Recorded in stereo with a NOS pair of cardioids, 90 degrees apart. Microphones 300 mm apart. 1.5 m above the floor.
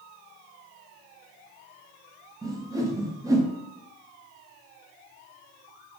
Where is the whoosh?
10° right, 0.6 m.